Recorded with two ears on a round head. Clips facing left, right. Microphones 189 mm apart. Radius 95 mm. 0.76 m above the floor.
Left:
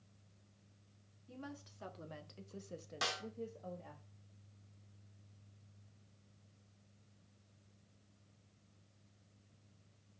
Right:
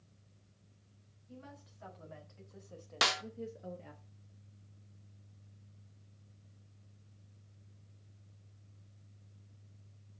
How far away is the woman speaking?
About 2 m.